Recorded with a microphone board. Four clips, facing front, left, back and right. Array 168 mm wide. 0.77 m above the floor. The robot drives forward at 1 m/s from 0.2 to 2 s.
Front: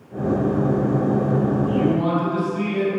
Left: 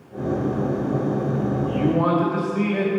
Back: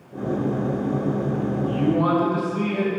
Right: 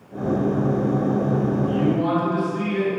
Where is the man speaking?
110° left, 2.5 m; by 2.9 s 120° left, 2.5 m.